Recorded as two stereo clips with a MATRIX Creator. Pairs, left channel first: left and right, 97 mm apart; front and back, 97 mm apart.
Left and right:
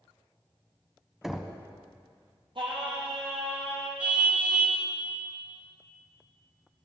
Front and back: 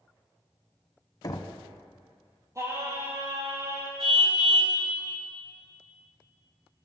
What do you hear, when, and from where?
1.2 s knocking: 5° right, 1.3 m
2.5 s singing: 120° right, 4 m
4.0 s a car horn: 170° right, 6 m